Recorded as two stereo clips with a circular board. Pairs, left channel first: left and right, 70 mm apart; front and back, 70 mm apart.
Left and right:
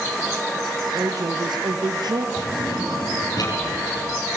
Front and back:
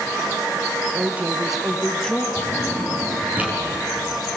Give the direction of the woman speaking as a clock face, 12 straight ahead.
4 o'clock.